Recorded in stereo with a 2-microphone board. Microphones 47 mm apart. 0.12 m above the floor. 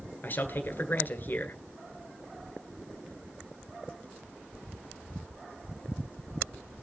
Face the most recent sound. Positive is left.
turn(degrees=45)  # may be behind; listen again after turning